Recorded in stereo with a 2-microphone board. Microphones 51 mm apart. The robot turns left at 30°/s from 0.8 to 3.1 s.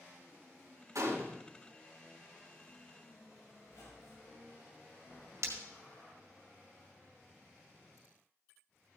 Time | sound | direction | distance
0.9 | a gunshot | 75° right (ahead or behind) | 2.5 m
3.6 | a squeak | 65° left (ahead or behind) | 3.5 m
5.4 | breaking glass | 65° right (ahead or behind) | 2 m